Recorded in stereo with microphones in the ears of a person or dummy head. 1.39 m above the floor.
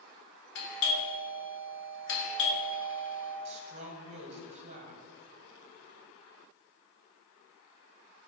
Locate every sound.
0.6 s a doorbell: 60° left (ahead or behind), 1.7 m
3.5 s a woman speaking: 35° right (ahead or behind), 1.1 m